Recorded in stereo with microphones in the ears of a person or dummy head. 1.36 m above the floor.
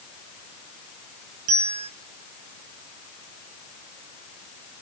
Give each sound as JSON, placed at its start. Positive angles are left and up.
{"t": 1.5, "sound": "a bell", "side_deg": -40, "distance_m": 3.5}